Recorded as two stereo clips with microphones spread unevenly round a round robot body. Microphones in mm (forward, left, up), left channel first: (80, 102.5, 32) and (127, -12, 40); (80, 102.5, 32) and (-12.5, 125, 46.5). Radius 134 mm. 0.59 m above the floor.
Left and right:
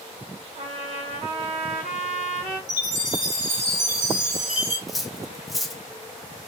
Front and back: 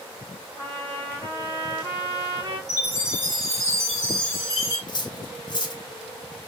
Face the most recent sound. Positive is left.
turn(degrees=25)